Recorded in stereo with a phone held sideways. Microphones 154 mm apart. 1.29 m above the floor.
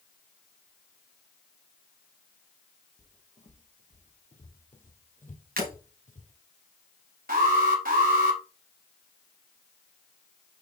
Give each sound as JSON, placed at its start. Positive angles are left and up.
{"t": 3.0, "sound": "footsteps", "side_deg": 50, "distance_m": 3.0}
{"t": 5.6, "sound": "breaking glass", "side_deg": -70, "distance_m": 4.5}
{"t": 7.3, "sound": "an alarm", "side_deg": -75, "distance_m": 4.0}